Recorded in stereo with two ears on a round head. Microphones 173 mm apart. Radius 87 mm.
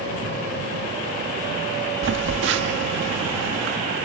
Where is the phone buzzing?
65° right (ahead or behind).